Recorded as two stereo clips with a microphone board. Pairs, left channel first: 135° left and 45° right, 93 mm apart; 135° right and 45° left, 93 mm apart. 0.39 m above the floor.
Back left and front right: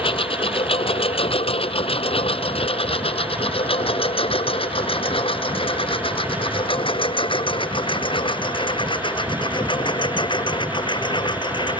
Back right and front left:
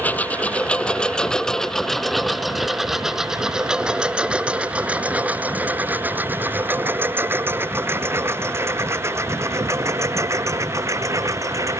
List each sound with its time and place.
0.0 s a lawn mower: 150° left; by 11.8 s 100° left